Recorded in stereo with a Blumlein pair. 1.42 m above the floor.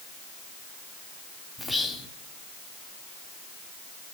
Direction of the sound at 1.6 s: 10° left.